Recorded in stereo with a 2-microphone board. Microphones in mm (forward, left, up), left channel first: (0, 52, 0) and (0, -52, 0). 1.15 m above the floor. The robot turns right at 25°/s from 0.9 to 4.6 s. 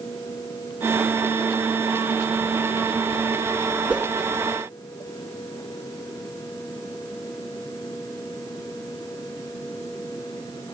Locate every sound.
3.9 s a whoosh: 10° right (ahead or behind), 1.6 m; by 4.1 s 5° right (ahead or behind), 1.6 m